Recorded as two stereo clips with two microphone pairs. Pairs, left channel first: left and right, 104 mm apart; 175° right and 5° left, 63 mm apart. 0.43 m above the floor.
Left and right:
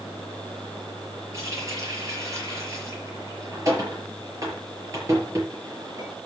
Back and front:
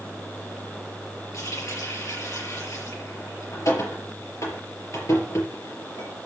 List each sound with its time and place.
1.3 s a running tap: 150° right, 5.5 m